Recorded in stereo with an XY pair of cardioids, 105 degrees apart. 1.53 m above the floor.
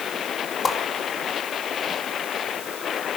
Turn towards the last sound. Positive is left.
turn(degrees=40)